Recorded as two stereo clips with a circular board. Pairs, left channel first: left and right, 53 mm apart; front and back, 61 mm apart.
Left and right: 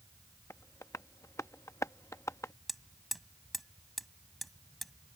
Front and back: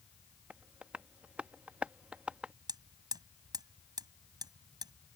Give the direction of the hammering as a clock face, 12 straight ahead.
6 o'clock.